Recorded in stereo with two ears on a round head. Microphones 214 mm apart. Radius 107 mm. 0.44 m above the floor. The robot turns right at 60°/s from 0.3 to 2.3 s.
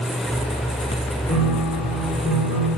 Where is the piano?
175° left, 5.5 m; by 2.7 s 120° right, 5.5 m.